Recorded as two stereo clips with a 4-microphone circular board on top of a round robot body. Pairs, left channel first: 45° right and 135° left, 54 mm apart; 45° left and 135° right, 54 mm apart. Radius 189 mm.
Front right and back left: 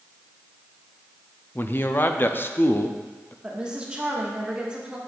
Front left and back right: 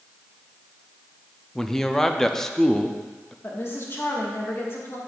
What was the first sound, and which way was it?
A man speaking, 35° right.